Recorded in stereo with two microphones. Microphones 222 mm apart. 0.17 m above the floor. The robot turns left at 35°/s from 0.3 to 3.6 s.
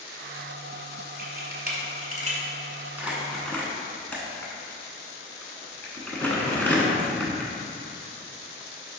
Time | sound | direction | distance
1.2 | a camera shutter | 50° right (ahead or behind) | 0.9 m
3.0 | crumpling | 10° right (ahead or behind) | 0.8 m